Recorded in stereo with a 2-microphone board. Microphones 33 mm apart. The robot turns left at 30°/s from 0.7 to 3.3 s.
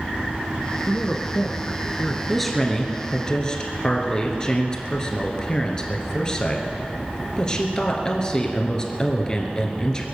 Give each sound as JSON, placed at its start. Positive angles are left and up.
{"t": 0.9, "sound": "a man speaking", "azimuth_deg": 75, "distance_m": 1.2}
{"t": 2.3, "sound": "a woman speaking", "azimuth_deg": 180, "distance_m": 2.0}